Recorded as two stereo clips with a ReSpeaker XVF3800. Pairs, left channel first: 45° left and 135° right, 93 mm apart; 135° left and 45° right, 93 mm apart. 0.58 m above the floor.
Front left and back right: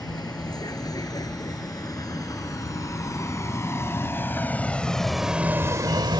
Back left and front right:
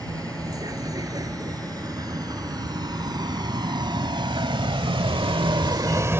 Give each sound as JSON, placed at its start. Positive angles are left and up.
{"t": 0.0, "sound": "a vehicle", "azimuth_deg": 0}